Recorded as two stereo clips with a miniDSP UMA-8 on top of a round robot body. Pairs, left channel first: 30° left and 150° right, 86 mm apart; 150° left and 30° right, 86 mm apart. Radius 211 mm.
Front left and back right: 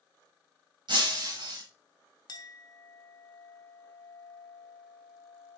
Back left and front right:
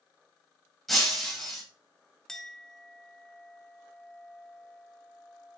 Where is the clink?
65° left, 1.1 m.